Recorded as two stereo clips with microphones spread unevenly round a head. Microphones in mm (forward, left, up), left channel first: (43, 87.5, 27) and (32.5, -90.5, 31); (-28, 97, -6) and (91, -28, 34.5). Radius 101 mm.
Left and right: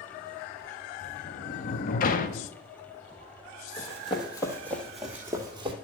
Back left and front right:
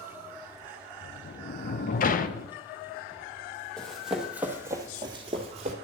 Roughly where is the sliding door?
Behind left.